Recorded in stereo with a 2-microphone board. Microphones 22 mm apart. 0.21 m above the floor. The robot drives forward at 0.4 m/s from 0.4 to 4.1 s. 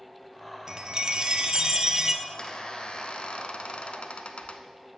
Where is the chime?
30° right (ahead or behind), 0.6 m.